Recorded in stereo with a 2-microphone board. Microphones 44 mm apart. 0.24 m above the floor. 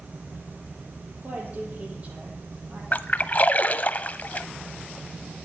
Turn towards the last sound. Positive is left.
turn(degrees=40)  # may be behind; listen again after turning